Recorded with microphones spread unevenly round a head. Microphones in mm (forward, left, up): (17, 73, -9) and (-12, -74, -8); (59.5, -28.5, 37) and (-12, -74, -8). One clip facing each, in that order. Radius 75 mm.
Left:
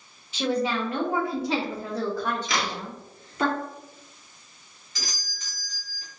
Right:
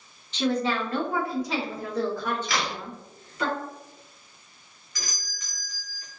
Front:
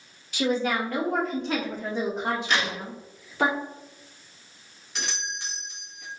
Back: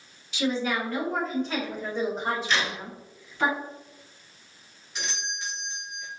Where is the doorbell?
40° left, 1.3 m.